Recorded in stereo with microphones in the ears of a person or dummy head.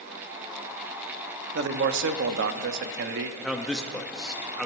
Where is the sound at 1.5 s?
60° right (ahead or behind), 0.6 m.